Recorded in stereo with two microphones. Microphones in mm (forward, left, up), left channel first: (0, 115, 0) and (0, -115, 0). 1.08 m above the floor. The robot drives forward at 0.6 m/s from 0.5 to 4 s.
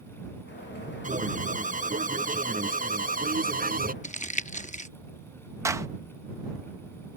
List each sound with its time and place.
1.0 s an alarm: 35° right (ahead or behind); by 3.9 s 40° right (ahead or behind)
4.0 s crumpling: 35° left (ahead or behind)
5.7 s a clap: 15° right (ahead or behind)